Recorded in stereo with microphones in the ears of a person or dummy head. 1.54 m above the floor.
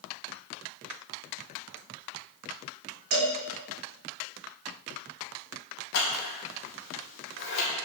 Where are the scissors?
55° left (ahead or behind), 1.7 m.